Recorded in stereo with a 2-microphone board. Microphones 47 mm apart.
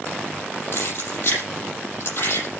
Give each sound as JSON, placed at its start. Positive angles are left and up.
{"t": 0.7, "sound": "keys jangling", "side_deg": 50, "distance_m": 8.0}